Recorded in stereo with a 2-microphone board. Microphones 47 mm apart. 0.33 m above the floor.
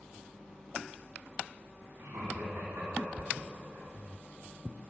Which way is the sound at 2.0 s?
60° right (ahead or behind).